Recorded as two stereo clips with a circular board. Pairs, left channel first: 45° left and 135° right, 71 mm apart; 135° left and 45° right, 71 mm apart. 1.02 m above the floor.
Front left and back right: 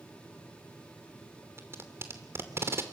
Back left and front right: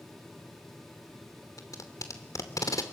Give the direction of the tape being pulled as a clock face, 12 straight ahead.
6 o'clock.